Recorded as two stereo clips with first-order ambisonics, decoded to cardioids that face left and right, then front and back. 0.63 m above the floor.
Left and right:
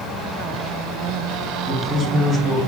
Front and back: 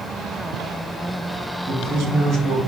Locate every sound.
1.7 s a man speaking: 170° right, 1.5 m